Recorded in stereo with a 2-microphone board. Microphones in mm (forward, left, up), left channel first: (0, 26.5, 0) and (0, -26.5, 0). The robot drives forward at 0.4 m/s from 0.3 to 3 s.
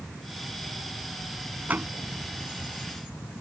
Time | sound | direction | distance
1.7 | a door slam | 30° right (ahead or behind) | ?